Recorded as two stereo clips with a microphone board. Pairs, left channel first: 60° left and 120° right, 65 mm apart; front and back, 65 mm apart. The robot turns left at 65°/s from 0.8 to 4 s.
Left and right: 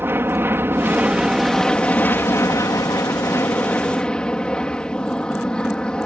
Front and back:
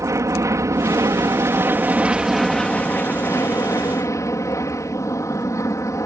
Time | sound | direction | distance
0.0 | an aircraft | 165° right | ?